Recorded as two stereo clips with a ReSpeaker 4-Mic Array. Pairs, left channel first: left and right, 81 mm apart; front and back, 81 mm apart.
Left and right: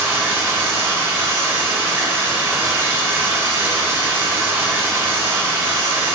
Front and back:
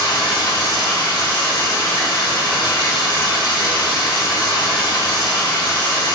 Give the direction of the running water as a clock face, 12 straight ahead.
1 o'clock.